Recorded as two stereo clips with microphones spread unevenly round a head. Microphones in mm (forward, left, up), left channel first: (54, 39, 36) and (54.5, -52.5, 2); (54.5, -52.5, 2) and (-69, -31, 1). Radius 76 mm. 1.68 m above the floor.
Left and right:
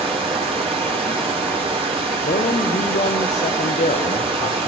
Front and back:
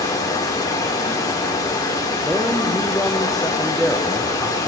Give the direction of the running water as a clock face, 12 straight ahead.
2 o'clock.